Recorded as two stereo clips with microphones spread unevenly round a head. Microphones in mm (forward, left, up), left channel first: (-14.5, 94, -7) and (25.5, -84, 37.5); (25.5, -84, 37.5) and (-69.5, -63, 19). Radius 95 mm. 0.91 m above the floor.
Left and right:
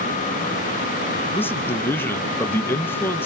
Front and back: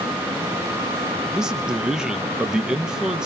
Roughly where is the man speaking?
Behind left.